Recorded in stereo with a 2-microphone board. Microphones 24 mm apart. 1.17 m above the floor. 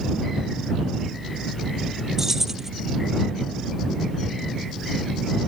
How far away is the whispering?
No whispering in this recording.